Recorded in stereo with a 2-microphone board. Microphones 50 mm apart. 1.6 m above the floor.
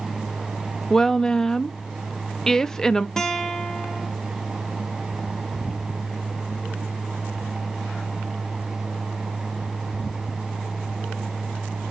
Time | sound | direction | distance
0.9 | a woman speaking | 10° left (ahead or behind) | 0.5 m
3.2 | a guitar | 10° left (ahead or behind) | 1.1 m